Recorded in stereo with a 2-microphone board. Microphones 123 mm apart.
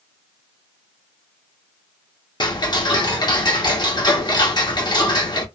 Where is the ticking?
35° left (ahead or behind), 0.6 m.